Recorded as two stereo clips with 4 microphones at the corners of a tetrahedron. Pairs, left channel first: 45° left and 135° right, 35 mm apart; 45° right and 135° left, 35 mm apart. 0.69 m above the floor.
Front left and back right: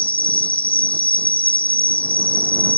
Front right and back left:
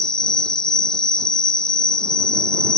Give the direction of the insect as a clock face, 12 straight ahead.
11 o'clock.